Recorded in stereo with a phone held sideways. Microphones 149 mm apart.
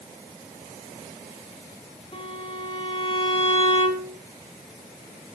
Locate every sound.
2.1 s a violin: 40° left (ahead or behind), 6 m